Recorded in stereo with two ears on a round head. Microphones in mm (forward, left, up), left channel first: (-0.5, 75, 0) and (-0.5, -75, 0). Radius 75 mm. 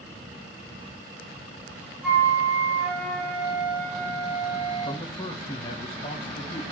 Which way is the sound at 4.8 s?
35° left (ahead or behind).